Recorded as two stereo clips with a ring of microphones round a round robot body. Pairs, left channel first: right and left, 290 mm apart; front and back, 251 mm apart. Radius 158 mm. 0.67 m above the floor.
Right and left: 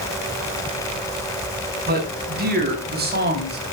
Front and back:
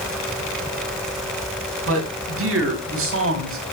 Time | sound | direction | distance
1.9 | a man speaking | 150° left | 6 m